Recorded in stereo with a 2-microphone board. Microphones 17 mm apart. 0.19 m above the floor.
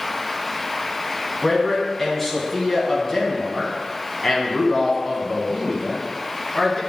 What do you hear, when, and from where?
1.4 s a man speaking: 10° left (ahead or behind), 1.9 m